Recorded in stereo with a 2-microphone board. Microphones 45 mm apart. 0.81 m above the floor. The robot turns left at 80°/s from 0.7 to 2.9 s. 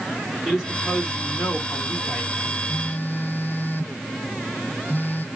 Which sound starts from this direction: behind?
A man speaking, at 0.5 s.